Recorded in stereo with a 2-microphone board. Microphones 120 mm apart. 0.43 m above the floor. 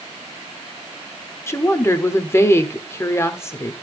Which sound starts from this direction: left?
A woman speaking, at 1.5 s.